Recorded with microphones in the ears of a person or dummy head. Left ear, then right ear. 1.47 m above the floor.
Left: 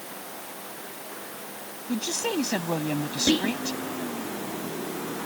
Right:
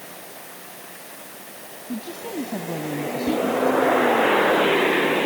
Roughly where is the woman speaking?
Left.